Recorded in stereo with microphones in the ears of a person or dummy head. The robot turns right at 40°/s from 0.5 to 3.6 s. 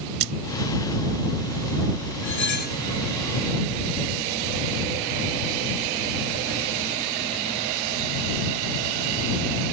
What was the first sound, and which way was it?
A splash, 85° right.